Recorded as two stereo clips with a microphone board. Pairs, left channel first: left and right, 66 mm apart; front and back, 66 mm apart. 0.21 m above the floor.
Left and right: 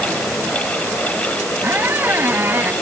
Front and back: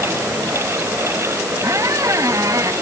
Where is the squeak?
150° right.